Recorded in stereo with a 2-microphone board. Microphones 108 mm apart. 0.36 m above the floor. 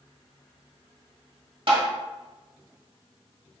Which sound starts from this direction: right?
Tapping, at 1.7 s.